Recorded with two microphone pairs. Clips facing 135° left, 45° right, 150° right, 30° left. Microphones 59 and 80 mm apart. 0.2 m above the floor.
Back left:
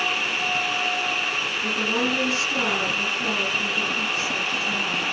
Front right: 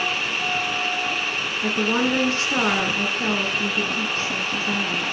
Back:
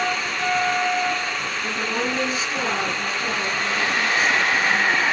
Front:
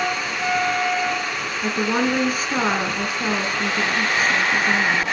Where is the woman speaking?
Straight ahead, 3 m.